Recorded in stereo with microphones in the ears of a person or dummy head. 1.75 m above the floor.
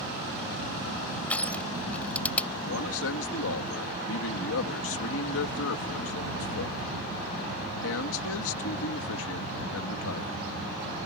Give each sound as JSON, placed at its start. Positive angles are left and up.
{"t": 1.3, "sound": "crushing", "side_deg": 10}
{"t": 2.6, "sound": "a man speaking", "side_deg": 80}